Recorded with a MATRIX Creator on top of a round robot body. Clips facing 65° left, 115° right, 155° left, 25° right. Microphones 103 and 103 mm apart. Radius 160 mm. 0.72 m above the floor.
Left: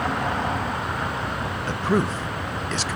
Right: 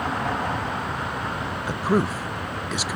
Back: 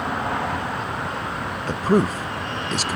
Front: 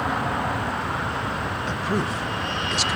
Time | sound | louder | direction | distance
1.6 | a man speaking | even, back 8 dB | 170° left | 0.5 m